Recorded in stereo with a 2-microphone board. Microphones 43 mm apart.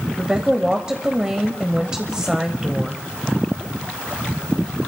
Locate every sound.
0.2 s a woman speaking: 20° right (ahead or behind), 1.0 m